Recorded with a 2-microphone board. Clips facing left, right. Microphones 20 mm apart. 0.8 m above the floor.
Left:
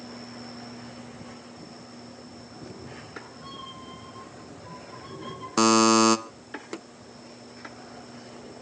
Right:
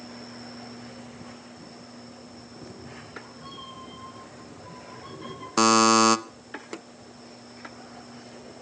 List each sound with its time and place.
2.6 s a cat meowing: 10° left (ahead or behind), 7 m; by 5.5 s 10° right (ahead or behind), 7.5 m
5.6 s a buzzer: 10° right (ahead or behind), 1.0 m